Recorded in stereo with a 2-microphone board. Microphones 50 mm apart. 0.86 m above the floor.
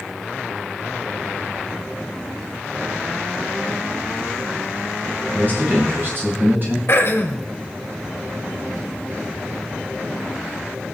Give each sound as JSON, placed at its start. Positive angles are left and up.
{"t": 5.3, "sound": "a man speaking", "side_deg": -45, "distance_m": 4.5}
{"t": 6.9, "sound": "throat clearing", "side_deg": 50, "distance_m": 2.0}